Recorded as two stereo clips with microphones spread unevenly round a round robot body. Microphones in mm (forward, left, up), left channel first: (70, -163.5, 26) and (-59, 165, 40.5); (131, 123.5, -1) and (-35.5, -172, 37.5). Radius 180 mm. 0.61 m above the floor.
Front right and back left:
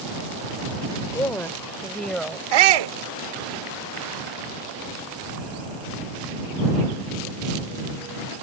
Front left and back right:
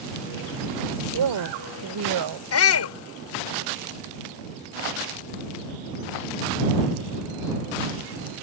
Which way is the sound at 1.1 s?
150° right.